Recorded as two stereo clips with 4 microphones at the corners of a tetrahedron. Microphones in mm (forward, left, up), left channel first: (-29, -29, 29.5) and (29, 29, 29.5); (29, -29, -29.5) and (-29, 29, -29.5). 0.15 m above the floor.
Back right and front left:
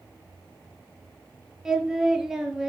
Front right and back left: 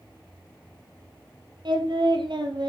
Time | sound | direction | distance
1.6 | singing | 125° left | 4 m